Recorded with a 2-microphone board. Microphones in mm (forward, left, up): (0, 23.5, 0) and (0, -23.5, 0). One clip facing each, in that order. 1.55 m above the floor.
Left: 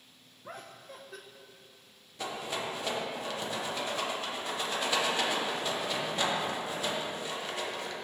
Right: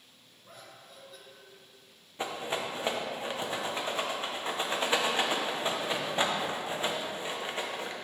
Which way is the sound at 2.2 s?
25° right (ahead or behind).